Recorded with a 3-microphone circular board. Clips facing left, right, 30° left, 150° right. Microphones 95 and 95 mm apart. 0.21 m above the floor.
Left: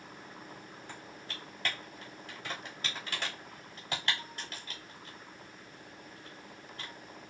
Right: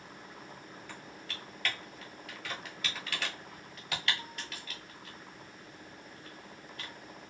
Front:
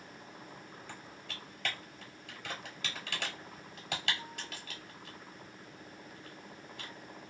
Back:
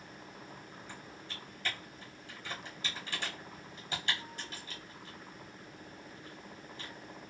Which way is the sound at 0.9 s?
35° left.